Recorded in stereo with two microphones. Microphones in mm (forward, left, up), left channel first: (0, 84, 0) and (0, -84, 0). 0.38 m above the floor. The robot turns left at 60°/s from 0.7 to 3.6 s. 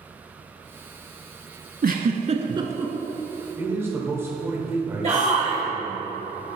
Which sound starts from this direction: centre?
A man speaking, at 3.6 s.